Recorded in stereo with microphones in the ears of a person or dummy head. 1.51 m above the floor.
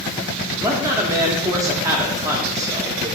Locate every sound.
0.6 s a man speaking: 20° right (ahead or behind), 0.5 m